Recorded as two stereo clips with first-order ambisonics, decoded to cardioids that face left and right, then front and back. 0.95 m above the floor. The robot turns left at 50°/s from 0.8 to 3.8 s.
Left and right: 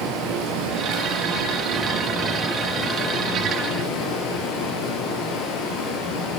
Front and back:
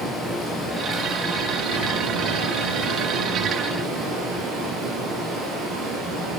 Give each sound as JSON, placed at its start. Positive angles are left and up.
{"t": 0.0, "sound": "running water", "azimuth_deg": -100, "distance_m": 8.5}